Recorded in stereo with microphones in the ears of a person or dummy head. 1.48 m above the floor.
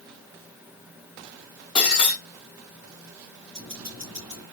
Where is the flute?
I don't hear a flute.